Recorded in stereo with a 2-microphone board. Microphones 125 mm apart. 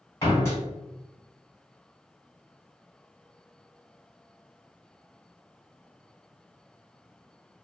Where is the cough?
No cough in this recording.